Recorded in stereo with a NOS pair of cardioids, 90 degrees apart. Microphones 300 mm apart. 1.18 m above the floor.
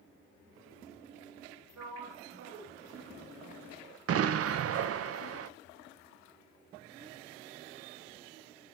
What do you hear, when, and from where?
1.8 s a sliding door: 65° right, 2.5 m
4.1 s an explosion: 55° right, 0.7 m